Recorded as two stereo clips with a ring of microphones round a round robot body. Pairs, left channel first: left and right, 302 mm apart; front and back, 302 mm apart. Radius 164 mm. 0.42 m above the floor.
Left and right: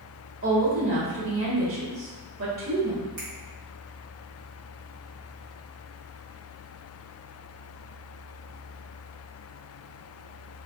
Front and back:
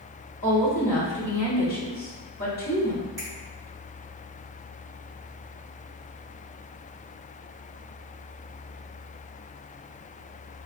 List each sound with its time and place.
0.4 s a woman speaking: 55° right, 1.4 m
3.2 s a finger snap: 100° right, 2.0 m